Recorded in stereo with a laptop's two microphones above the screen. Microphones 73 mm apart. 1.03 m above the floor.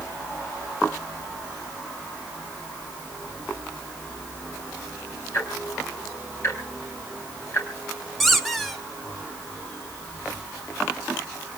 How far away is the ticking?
About 3.5 m.